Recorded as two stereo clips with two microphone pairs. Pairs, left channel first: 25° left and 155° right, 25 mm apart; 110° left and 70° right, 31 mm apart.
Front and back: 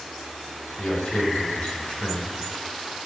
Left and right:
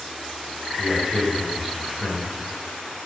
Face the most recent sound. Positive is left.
turn(degrees=15)